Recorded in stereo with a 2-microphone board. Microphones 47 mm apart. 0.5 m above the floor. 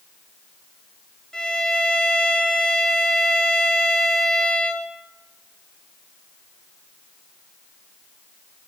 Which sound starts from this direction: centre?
A violin, at 1.3 s.